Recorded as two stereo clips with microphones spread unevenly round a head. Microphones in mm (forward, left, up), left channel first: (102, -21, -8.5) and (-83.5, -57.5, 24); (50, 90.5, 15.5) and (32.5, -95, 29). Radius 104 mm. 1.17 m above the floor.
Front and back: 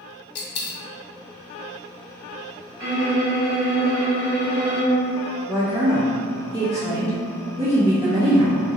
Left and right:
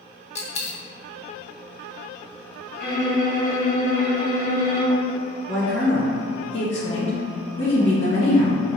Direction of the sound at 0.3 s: 35° left.